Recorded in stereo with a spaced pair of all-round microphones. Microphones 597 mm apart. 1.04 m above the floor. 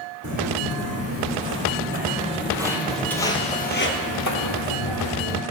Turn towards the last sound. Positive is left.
turn(degrees=55)  # may be behind; listen again after turning